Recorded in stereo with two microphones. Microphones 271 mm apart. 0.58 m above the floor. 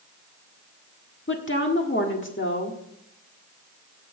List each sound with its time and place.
1.3 s a woman speaking: 45° left (ahead or behind), 1.5 m